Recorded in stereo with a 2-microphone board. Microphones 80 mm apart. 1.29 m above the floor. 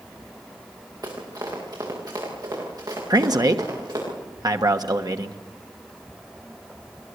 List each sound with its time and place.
1.0 s running footsteps: 50° right (ahead or behind), 8 m
3.1 s a man speaking: 50° right (ahead or behind), 1.4 m